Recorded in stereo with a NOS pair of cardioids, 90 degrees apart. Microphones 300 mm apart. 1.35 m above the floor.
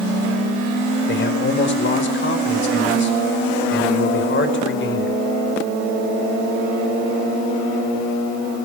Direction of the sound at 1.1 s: 40° left.